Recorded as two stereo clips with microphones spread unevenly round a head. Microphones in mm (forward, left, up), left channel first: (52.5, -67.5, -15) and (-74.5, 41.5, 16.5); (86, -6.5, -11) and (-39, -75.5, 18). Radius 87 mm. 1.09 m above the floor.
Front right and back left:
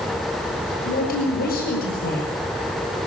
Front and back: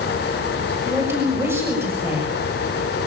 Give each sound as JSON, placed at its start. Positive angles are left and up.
{"t": 0.8, "sound": "a woman speaking", "azimuth_deg": -75, "distance_m": 7.0}